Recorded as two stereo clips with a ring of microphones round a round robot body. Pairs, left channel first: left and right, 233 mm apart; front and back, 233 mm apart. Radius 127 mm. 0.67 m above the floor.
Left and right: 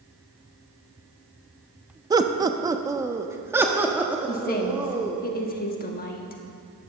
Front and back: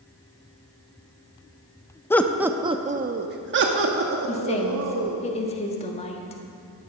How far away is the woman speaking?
About 1.3 m.